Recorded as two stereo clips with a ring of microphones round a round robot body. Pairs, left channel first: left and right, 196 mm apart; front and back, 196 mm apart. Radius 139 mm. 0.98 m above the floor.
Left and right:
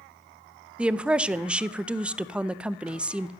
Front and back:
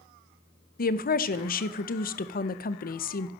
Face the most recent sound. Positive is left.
turn(degrees=-10)